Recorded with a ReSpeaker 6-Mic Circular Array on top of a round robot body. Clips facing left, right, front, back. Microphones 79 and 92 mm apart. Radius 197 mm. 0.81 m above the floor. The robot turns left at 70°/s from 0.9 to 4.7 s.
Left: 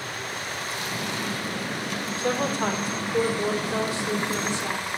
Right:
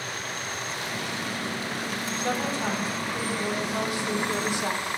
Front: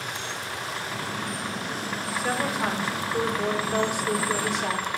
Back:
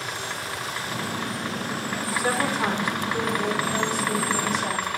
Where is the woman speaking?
150° left, 3.5 m; by 4.8 s 25° right, 3.5 m.